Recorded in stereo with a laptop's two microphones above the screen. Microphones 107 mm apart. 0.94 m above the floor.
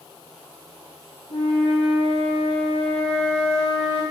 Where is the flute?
80° left, 3 m.